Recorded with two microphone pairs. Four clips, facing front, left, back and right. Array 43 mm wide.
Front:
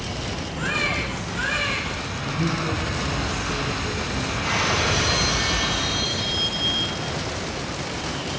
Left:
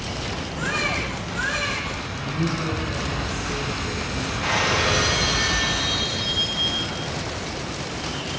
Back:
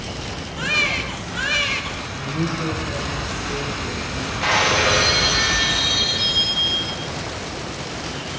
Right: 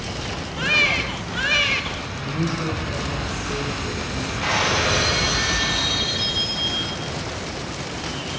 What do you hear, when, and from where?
0.6 s a baby crying: 115° right, 3.5 m
2.2 s a man speaking: 140° right, 6 m
4.4 s breaking glass: 160° right, 4.5 m